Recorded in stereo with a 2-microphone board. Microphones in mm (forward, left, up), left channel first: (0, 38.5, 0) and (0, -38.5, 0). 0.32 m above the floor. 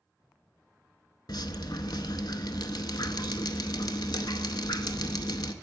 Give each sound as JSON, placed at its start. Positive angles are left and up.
{"t": 1.3, "sound": "dripping", "side_deg": 75, "distance_m": 0.5}